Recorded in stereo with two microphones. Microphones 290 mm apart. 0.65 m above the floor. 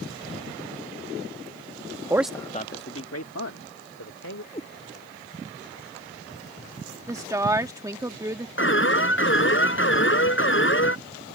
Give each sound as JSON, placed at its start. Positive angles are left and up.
{"t": 2.1, "sound": "a man speaking", "side_deg": -15}
{"t": 4.5, "sound": "a cat meowing", "side_deg": 20}
{"t": 7.1, "sound": "a woman speaking", "side_deg": -10}
{"t": 8.6, "sound": "an alarm", "side_deg": 45}